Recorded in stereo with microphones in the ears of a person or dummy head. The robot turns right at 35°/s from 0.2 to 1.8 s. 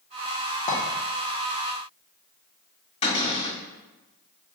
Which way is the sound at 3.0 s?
30° left (ahead or behind).